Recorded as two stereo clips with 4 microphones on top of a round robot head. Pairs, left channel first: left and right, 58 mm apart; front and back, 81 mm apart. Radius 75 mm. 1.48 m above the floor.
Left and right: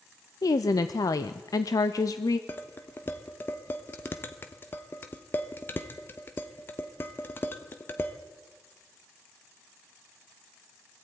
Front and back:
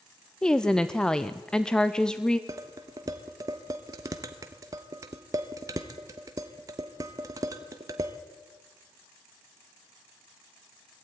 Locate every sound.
0.4 s a woman speaking: 80° left, 0.6 m
2.5 s dishes clattering: 135° left, 0.9 m